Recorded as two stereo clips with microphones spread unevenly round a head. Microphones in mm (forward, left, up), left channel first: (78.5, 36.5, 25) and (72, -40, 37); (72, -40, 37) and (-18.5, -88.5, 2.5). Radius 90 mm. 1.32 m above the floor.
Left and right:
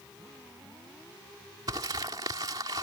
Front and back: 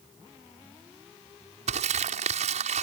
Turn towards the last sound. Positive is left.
turn(degrees=-160)